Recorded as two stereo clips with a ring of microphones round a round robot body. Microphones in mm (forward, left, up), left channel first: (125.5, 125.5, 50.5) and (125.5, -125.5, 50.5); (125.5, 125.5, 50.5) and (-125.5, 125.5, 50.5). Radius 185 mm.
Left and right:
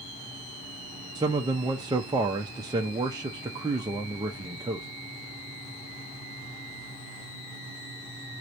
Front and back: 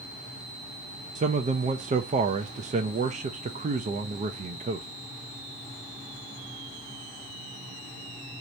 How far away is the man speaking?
About 0.5 m.